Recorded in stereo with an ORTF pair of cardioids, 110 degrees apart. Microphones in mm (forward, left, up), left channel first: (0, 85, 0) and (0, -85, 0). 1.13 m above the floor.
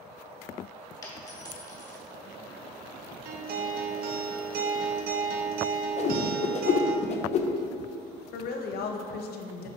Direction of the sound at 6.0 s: 45° left.